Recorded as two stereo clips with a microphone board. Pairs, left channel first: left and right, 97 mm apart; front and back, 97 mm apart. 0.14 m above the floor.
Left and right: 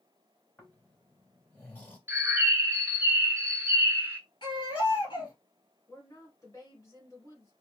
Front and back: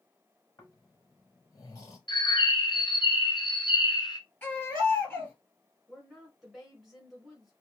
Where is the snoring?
30° left, 2.0 m.